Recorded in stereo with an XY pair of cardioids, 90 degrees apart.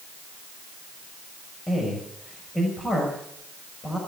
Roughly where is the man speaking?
Ahead left.